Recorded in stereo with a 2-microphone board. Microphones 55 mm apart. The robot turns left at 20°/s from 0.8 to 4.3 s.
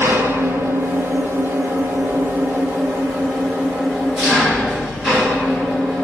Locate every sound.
0.0 s an engine running: 105° right, 2 m; by 6.0 s 175° right, 2 m